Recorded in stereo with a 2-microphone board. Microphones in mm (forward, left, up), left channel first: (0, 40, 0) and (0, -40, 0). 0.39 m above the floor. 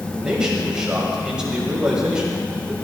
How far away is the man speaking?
About 1.8 m.